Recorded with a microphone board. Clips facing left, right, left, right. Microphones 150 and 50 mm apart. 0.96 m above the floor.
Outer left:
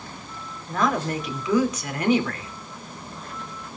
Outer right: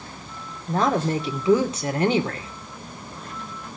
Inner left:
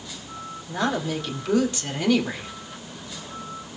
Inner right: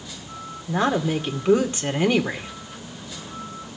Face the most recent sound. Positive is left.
turn(degrees=-30)  # may be behind; listen again after turning